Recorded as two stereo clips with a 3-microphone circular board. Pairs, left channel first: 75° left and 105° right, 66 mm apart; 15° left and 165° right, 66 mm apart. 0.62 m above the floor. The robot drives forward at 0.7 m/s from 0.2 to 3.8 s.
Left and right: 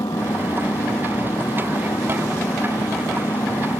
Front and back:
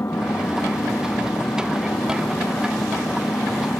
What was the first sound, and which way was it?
An engine running, 65° left.